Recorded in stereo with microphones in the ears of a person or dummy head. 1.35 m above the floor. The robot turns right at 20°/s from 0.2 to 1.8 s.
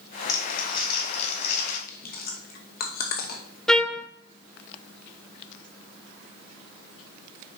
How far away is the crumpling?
About 2 m.